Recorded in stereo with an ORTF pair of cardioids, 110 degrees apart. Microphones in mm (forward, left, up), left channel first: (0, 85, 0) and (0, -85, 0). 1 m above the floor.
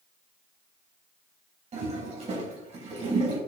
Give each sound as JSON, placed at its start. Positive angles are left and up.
{"t": 1.7, "sound": "a toilet flushing", "azimuth_deg": -40, "distance_m": 3.0}